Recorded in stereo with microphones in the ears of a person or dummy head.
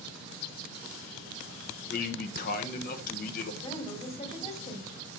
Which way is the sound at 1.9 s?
50° left (ahead or behind).